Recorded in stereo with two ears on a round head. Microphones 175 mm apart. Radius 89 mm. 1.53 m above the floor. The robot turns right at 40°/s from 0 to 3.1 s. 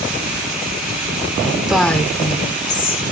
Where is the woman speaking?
5° right, 1.5 m; by 3.0 s 50° left, 1.5 m.